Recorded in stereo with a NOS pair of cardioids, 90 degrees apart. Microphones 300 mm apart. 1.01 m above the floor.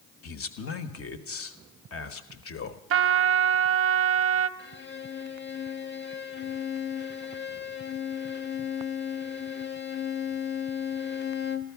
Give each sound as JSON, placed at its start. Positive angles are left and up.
{"t": 0.2, "sound": "a man speaking", "azimuth_deg": 50, "distance_m": 1.3}
{"t": 2.9, "sound": "a trumpet", "azimuth_deg": -50, "distance_m": 0.6}
{"t": 4.6, "sound": "a violin", "azimuth_deg": 35, "distance_m": 0.9}